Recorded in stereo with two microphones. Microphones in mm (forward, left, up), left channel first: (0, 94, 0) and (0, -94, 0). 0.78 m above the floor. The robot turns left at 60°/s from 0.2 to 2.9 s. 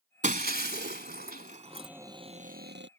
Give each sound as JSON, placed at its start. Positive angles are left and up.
{"t": 0.2, "sound": "breaking glass", "side_deg": -40}
{"t": 1.7, "sound": "a cupboard door", "azimuth_deg": 5}